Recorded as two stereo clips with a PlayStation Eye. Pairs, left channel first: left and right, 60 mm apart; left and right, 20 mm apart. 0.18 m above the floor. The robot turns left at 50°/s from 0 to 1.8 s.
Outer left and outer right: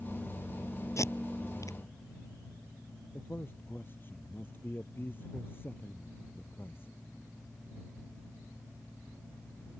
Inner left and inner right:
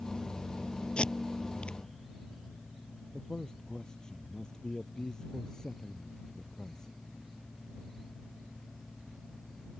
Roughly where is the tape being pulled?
Left.